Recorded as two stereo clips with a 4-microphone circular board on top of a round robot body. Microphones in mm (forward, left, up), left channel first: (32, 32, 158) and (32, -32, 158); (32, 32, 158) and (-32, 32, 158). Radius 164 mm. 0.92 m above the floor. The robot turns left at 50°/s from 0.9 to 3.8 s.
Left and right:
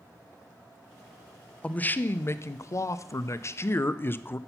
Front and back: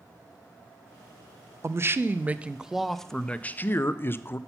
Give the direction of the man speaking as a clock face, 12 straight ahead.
7 o'clock.